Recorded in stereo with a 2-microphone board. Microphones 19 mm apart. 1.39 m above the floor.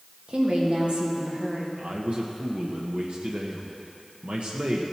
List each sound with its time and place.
0.3 s a woman speaking: 65° right (ahead or behind), 2 m
1.8 s a man speaking: 70° right (ahead or behind), 1.0 m